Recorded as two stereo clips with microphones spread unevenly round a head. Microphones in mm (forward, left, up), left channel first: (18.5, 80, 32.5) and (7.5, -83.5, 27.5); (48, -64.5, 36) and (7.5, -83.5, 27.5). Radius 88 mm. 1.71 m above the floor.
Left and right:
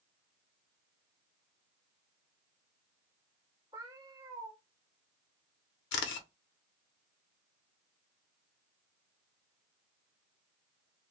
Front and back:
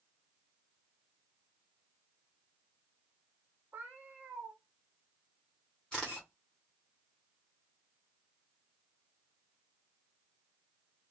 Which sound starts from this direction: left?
A camera shutter, at 5.9 s.